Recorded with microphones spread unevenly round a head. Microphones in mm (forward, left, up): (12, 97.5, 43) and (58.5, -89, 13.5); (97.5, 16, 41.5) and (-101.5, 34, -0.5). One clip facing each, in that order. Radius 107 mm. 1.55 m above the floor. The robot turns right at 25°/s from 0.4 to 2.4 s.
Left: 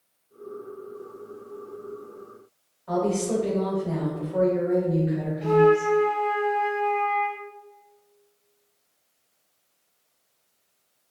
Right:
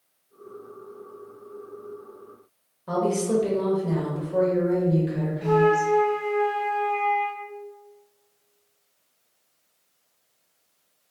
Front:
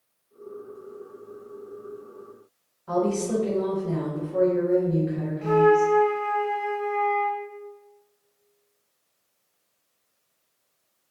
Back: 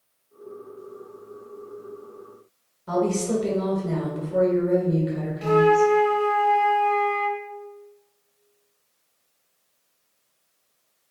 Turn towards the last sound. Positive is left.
turn(degrees=180)